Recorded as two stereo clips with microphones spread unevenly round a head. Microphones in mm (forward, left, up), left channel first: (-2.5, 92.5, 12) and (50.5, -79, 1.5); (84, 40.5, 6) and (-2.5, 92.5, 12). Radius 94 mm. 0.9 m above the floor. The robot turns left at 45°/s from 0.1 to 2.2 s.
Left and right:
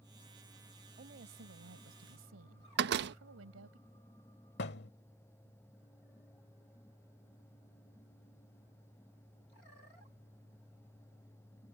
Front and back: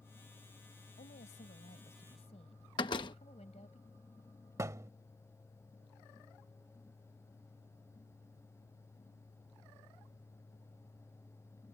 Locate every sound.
1.0 s a woman speaking: 30° right; by 3.8 s 85° right
2.8 s a door slam: 80° right
4.6 s a thud: 95° left